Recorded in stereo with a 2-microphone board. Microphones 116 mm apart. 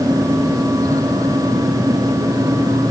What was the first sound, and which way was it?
Only background noise.